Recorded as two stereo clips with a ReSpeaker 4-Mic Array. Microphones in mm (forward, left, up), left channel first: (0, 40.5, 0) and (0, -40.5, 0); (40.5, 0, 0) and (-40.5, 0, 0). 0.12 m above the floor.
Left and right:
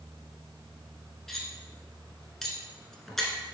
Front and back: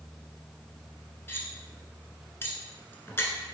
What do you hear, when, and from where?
1.3 s cutlery clinking: 5° left, 0.8 m